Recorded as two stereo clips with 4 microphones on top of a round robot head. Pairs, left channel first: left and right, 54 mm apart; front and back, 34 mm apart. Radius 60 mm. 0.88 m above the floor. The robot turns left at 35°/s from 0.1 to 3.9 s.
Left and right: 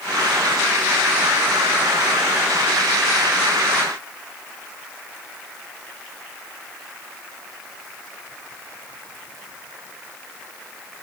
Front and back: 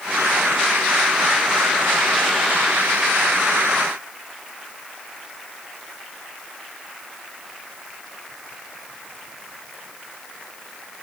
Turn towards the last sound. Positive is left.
No sound to turn to.